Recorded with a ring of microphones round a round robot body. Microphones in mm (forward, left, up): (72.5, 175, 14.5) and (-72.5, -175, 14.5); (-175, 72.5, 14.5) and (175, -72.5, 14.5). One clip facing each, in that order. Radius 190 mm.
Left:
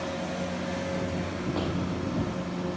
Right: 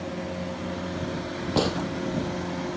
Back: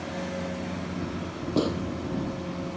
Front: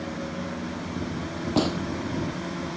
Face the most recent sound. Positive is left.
turn(degrees=-95)